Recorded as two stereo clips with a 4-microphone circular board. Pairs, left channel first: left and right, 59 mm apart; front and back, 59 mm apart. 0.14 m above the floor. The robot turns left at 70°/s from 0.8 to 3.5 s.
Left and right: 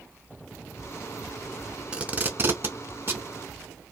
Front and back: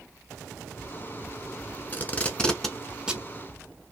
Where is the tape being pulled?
30° right, 0.6 m; by 3.3 s 125° right, 0.6 m.